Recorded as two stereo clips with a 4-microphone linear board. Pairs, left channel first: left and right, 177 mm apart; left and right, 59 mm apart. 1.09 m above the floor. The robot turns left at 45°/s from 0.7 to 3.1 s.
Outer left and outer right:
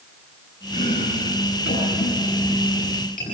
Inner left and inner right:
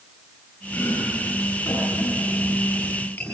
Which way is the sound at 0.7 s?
45° left (ahead or behind).